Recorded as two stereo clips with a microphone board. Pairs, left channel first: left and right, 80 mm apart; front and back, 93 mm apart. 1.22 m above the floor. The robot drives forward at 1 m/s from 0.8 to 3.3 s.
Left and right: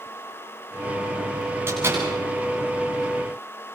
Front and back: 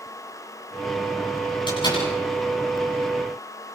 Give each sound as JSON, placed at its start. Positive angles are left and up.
{"t": 1.7, "sound": "a door slam", "azimuth_deg": -30, "distance_m": 10.0}